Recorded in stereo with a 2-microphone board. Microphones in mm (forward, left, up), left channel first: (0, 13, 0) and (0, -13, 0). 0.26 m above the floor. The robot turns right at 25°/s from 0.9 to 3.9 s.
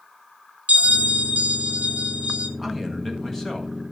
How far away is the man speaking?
About 1.5 m.